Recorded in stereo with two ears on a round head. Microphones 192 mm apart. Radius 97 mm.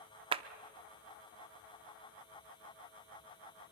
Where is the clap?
25° right (ahead or behind), 0.6 m.